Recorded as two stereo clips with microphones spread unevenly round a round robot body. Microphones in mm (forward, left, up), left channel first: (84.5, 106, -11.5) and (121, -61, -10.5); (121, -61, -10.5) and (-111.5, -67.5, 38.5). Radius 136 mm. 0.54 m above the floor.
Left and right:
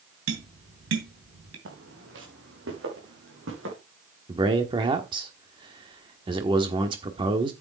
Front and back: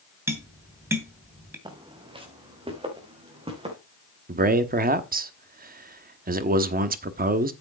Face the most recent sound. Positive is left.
turn(degrees=-130)